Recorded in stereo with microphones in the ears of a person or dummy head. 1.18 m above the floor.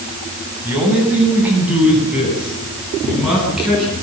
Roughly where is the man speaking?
Centre.